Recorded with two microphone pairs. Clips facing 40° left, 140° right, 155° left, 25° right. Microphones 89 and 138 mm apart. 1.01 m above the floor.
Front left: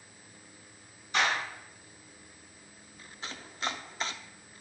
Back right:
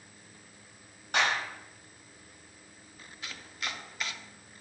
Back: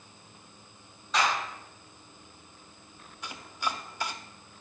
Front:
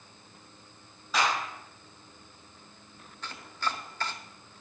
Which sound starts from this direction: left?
Chopping, at 3.2 s.